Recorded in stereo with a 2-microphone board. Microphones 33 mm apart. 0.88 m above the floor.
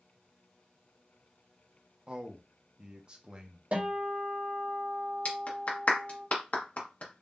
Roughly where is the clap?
Left.